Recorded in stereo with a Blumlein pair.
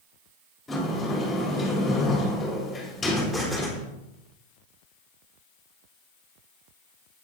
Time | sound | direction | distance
0.7 | a sliding door | 10° left | 3 m
3.1 | an explosion | straight ahead | 4 m